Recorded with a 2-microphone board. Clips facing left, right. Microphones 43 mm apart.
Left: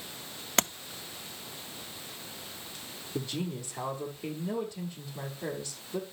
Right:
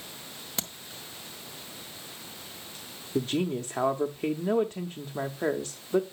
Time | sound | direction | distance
0.6 | tapping | 60° left (ahead or behind) | 0.7 m
3.1 | a man speaking | 55° right (ahead or behind) | 1.0 m